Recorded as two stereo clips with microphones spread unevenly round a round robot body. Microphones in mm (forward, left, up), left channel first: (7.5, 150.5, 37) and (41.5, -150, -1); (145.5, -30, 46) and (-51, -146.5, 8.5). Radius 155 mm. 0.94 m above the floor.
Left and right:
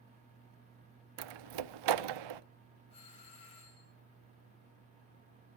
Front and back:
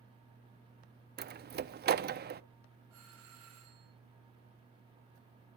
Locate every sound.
1.2 s a door slam: 95° right, 0.7 m
2.9 s a doorbell: 170° left, 7.5 m